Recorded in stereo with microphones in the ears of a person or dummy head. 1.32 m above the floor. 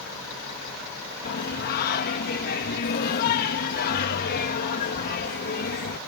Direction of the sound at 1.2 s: 50° left (ahead or behind).